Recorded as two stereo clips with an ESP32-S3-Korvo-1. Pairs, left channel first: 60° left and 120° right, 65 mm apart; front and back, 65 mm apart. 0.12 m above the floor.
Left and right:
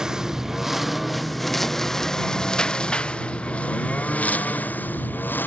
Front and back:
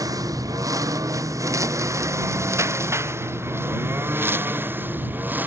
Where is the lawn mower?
160° left; by 5.5 s 120° left.